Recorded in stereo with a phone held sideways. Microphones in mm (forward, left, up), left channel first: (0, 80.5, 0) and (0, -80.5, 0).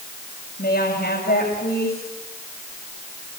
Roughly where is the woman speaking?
Left.